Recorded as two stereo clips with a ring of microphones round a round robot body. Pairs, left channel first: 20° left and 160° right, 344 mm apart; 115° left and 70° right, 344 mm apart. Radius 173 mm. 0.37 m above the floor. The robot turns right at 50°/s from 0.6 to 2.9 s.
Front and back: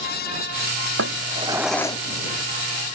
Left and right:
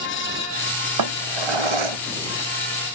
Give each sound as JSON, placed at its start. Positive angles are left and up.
{"t": 1.0, "sound": "a drawer", "azimuth_deg": -105}